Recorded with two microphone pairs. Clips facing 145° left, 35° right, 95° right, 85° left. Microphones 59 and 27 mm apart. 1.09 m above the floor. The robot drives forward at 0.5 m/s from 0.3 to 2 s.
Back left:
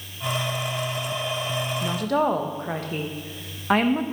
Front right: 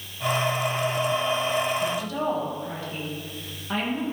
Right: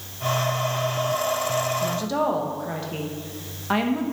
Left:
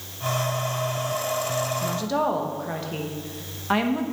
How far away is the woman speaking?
About 0.8 m.